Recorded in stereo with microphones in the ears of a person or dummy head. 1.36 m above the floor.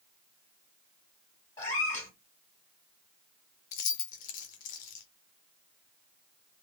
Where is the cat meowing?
15° left (ahead or behind), 2 m.